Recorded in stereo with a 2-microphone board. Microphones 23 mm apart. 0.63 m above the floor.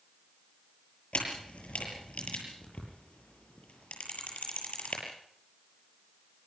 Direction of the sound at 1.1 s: 80° left.